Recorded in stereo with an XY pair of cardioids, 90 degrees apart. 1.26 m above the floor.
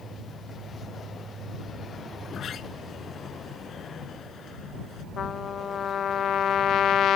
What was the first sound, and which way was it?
A sliding door, 65° left.